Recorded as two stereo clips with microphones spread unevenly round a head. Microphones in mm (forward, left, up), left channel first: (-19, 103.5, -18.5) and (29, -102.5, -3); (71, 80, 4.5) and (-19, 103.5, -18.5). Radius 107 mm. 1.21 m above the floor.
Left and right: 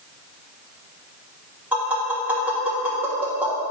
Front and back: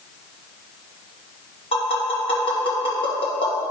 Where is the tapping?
5° left, 2 m.